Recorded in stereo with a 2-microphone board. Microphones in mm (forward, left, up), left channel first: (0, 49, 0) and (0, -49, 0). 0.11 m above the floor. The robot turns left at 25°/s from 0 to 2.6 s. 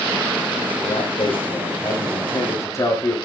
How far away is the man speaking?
About 8.5 m.